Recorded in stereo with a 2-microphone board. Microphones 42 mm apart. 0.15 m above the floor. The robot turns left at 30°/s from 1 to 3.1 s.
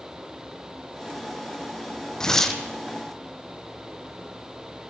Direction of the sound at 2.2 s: 15° left (ahead or behind).